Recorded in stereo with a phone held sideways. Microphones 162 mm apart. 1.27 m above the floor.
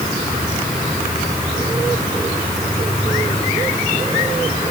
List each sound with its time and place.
Only background noise.